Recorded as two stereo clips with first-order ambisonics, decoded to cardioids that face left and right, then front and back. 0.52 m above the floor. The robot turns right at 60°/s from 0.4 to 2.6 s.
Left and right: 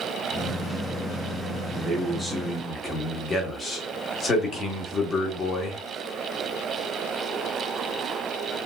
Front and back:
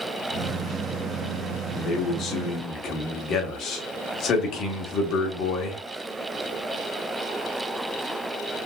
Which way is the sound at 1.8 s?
20° right.